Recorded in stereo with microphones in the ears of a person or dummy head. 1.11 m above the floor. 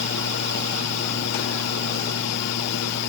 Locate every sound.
0.0 s a fan: 55° left (ahead or behind)